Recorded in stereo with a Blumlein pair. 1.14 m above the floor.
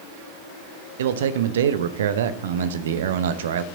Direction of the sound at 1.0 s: 60° right.